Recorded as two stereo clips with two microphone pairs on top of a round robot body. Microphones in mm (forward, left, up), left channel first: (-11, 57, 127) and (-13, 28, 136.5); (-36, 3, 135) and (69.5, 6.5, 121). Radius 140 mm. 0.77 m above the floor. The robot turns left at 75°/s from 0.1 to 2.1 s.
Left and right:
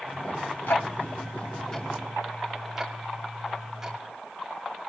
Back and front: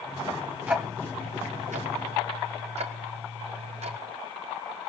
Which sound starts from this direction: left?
Ticking, at 0.7 s.